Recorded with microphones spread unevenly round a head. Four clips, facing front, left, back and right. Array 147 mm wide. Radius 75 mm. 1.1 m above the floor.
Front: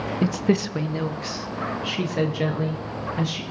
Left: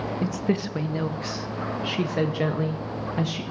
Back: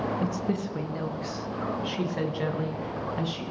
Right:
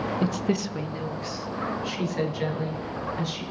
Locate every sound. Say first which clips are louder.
0.2 s a woman speaking: left 2 dB, front 7 dB; 20° right, 0.5 m; by 3.4 s 70° left, 1.8 m